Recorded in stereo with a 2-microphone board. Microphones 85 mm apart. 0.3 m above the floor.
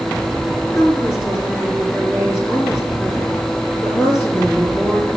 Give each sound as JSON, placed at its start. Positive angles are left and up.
{"t": 0.8, "sound": "a woman speaking", "side_deg": 30, "distance_m": 3.0}